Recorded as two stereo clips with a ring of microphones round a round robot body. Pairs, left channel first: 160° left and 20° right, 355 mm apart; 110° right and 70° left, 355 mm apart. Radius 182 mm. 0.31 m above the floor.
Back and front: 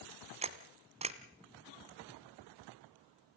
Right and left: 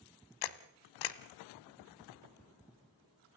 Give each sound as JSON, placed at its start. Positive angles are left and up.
{"t": 0.4, "sound": "a camera shutter", "azimuth_deg": -95, "distance_m": 1.1}